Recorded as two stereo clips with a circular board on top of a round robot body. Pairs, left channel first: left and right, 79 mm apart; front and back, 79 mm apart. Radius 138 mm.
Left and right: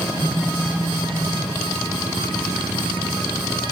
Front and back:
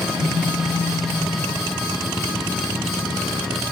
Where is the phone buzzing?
50° right, 3.5 m.